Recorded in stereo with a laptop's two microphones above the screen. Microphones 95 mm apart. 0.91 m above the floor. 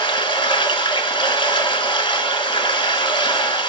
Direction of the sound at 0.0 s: 70° left (ahead or behind).